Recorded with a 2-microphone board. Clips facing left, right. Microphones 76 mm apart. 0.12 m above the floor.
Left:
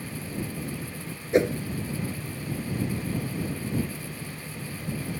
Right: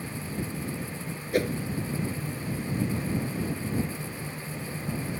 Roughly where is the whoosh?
Left.